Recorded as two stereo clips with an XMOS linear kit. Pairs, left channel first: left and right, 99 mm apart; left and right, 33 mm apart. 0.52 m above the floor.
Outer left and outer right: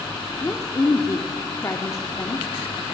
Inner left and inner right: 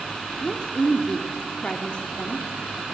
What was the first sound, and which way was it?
A woman speaking, 35° left (ahead or behind).